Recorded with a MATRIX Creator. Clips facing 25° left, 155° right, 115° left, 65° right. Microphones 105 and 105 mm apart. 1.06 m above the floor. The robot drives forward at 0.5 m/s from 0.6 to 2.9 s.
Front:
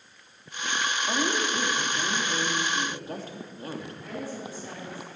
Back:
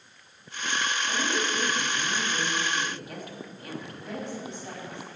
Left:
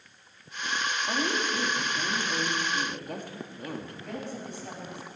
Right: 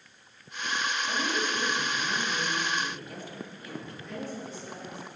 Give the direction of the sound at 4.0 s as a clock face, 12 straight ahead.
7 o'clock.